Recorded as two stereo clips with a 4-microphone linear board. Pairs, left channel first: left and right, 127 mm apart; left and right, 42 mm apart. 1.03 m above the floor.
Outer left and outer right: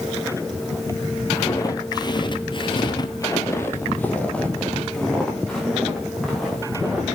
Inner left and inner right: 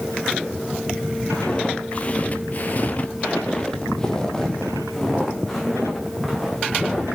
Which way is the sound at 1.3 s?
25° left (ahead or behind).